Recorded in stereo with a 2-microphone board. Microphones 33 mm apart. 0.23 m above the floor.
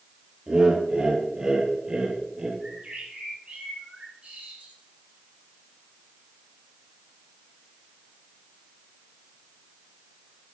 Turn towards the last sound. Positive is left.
turn(degrees=-35)  # may be behind; listen again after turning